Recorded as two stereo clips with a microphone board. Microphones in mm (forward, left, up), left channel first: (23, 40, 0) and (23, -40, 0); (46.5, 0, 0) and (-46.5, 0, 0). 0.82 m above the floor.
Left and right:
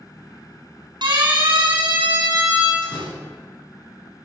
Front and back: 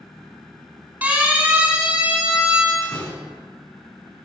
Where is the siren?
105° right, 9 m; by 2.7 s 100° right, 9 m.